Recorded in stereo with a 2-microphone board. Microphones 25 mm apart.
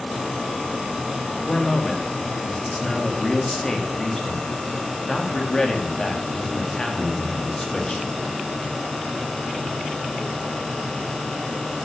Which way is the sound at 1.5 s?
25° left (ahead or behind).